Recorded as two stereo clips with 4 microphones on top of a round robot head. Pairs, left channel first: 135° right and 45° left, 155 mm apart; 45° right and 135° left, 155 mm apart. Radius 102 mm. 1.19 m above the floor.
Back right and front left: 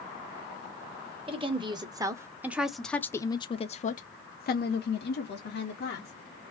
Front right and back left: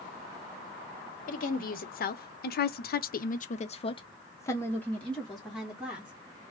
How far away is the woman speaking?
About 1.3 m.